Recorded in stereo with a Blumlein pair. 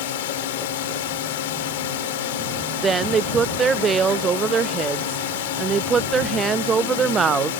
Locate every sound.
0.0 s a drone: 55° left
2.8 s a woman speaking: 20° right